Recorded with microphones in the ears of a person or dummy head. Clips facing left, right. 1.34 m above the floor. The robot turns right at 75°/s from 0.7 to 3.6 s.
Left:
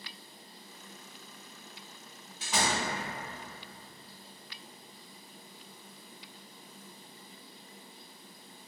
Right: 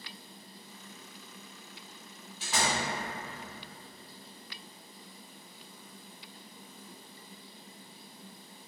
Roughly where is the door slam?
Centre.